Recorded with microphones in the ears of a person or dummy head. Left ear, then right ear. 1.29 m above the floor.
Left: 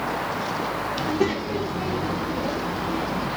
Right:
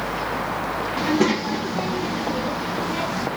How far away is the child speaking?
About 1.1 m.